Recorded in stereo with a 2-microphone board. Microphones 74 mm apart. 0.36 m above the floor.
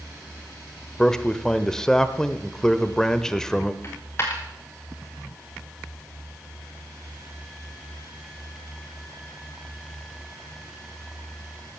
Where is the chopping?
No chopping in this recording.